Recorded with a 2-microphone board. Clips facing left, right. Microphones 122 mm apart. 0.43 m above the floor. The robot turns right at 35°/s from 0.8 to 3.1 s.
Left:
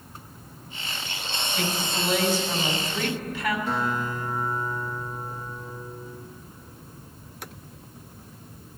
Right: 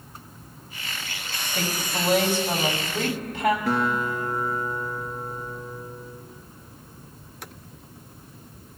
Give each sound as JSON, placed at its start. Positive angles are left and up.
{"t": 1.5, "sound": "a woman speaking", "azimuth_deg": -120, "distance_m": 2.5}
{"t": 3.7, "sound": "a guitar", "side_deg": -85, "distance_m": 1.7}